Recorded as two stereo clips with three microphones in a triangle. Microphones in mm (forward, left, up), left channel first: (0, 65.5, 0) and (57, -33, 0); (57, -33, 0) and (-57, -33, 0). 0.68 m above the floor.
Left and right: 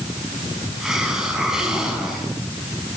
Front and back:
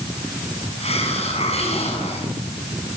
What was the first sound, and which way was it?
A hiss, 25° left.